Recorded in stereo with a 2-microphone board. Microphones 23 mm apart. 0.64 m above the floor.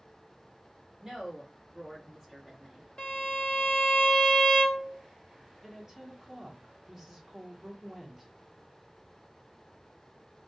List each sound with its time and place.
1.0 s a woman speaking: 20° right (ahead or behind), 1.3 m
3.0 s a violin: 45° left (ahead or behind), 0.5 m
5.6 s a woman speaking: 15° right (ahead or behind), 1.1 m